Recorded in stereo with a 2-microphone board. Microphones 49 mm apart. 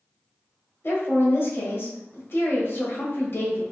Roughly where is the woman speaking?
Left.